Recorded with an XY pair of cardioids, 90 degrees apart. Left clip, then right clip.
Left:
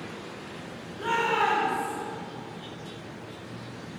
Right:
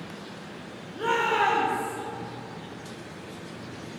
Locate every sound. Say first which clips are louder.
0.9 s a shout: right 1 dB; 70° right, 2.0 m; by 1.9 s 75° right, 1.5 m